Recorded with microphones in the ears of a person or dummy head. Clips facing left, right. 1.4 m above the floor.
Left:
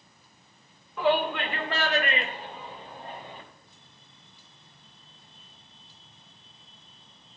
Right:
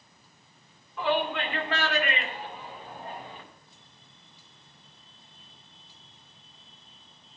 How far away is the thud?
No thud in this recording.